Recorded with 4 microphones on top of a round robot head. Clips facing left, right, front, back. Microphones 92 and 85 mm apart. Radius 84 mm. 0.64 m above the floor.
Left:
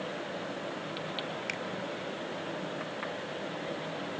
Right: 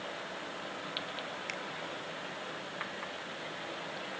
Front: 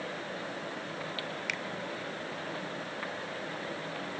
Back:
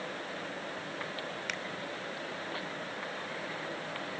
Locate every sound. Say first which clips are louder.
1.5 s a finger snap: left 4 dB, front 1 dB; 130° left